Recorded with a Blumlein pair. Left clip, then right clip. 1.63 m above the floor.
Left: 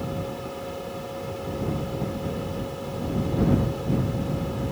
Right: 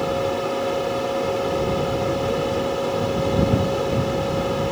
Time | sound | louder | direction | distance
0.0 | a fan | right 10 dB | 30° right | ?